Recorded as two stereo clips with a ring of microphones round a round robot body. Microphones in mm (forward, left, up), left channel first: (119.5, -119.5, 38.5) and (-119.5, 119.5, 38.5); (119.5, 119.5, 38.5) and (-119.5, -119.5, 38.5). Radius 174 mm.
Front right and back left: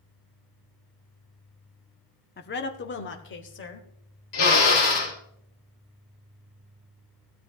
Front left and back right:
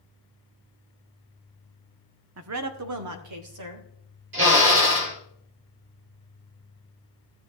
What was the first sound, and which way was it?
A woman speaking, 100° right.